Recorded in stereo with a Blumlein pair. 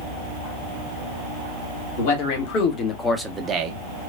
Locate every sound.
2.0 s a man speaking: 45° left, 1.2 m; by 3.8 s 45° right, 0.6 m